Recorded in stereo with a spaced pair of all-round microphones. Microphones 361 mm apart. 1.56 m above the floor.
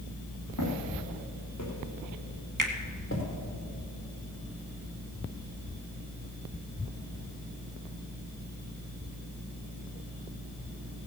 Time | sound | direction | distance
0.6 | footsteps | 60° left (ahead or behind) | 4 m
2.6 | a finger snap | 60° right (ahead or behind) | 1.8 m